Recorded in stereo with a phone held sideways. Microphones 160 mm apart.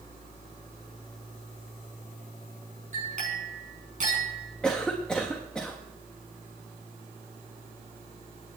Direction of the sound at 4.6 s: 5° left (ahead or behind).